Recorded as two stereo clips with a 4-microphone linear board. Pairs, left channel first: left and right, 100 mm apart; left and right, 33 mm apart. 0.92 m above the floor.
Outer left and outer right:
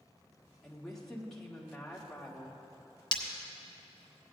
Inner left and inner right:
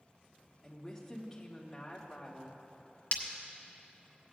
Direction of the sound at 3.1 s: 45° left (ahead or behind).